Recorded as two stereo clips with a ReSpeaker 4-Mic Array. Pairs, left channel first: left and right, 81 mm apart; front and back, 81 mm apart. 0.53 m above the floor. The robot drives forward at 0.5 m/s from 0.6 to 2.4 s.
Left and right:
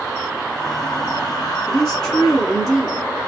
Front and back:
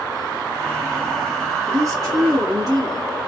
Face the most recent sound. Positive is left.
turn(degrees=175)